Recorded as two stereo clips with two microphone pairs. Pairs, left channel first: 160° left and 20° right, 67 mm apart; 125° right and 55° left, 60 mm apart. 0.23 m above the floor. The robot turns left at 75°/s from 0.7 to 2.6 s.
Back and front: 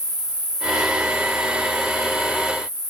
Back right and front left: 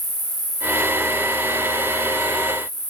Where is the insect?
85° left, 2 m; by 2.9 s 60° right, 2 m.